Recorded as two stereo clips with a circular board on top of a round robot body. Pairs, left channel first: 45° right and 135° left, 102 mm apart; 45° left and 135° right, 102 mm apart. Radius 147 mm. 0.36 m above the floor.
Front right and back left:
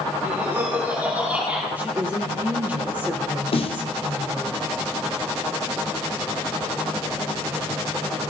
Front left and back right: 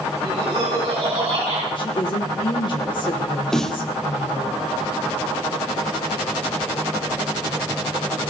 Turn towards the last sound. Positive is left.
turn(degrees=-40)